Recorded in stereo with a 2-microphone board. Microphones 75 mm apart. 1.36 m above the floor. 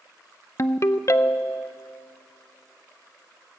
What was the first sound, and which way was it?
A ringtone, 40° left (ahead or behind).